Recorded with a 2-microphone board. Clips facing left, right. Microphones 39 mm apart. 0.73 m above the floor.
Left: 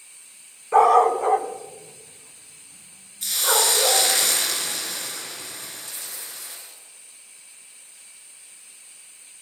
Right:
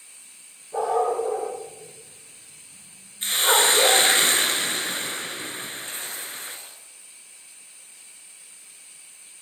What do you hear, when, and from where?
0.7 s a dog barking: 75° left (ahead or behind), 2 m; by 4.0 s 15° right (ahead or behind), 3 m
3.2 s a hiss: 35° right (ahead or behind), 3 m
5.9 s tearing paper: 40° right (ahead or behind), 5 m